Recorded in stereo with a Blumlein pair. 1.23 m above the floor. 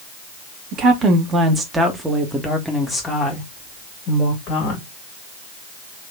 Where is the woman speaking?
30° right, 1.6 m; by 4.8 s 40° left, 2.0 m.